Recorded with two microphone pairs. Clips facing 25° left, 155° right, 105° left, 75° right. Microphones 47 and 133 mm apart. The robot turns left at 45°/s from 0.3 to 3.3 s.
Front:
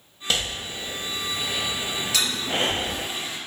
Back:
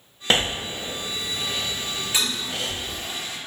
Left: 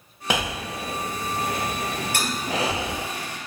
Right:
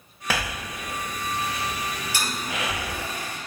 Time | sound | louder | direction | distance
0.3 | breathing | back 5 dB, left 3 dB | 165° left | 0.5 m
2.1 | a toilet flushing | front 2 dB, left 4 dB | 135° left | 4.5 m